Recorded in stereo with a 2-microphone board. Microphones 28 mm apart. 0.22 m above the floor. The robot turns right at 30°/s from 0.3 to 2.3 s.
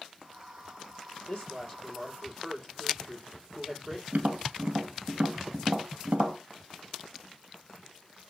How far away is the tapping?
About 1.9 m.